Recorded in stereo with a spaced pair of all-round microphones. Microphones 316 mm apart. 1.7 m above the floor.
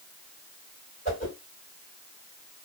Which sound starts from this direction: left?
A whoosh, at 1.1 s.